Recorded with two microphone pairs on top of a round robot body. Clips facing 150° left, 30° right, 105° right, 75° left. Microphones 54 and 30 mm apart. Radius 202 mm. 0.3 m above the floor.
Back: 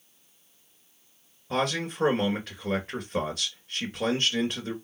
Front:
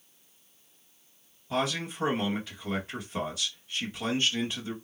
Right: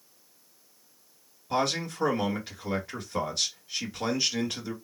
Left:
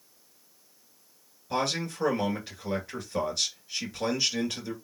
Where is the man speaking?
170° left, 2.5 m.